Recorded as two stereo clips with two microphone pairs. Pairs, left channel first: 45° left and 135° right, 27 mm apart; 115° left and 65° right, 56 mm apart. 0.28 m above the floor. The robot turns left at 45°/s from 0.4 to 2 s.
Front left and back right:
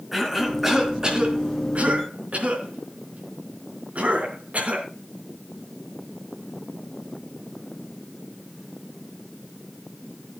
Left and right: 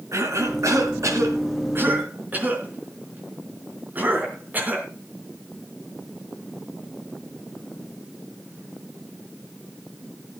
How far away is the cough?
About 3.5 m.